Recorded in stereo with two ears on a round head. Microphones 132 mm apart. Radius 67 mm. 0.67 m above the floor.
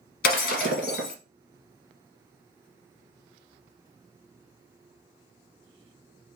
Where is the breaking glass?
70° left (ahead or behind), 1.6 m.